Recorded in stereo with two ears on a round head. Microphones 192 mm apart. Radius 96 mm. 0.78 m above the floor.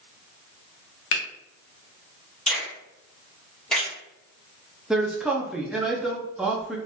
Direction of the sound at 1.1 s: 60° left (ahead or behind).